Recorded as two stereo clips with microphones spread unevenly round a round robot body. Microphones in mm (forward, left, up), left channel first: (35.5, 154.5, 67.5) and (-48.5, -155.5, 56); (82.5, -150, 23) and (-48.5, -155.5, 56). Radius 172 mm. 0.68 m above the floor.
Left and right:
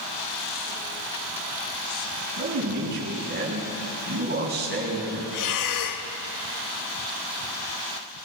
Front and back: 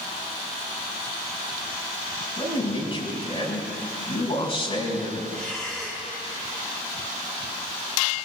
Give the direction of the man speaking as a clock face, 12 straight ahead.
1 o'clock.